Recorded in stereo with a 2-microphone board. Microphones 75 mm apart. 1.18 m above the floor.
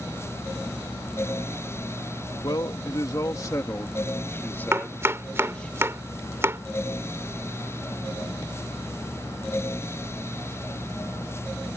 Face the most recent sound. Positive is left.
turn(degrees=-35)  # may be behind; listen again after turning